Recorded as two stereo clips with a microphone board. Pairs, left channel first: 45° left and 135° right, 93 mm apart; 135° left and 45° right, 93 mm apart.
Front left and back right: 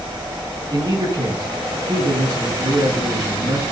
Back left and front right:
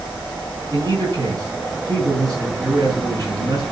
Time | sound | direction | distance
0.7 | a man speaking | 90° right | 6.5 m